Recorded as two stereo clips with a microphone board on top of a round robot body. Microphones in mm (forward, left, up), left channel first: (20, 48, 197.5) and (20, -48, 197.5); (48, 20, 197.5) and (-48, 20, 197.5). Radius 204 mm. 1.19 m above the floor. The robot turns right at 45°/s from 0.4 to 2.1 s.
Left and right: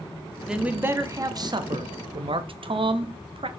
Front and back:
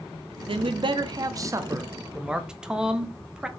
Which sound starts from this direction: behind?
A man speaking, at 0.5 s.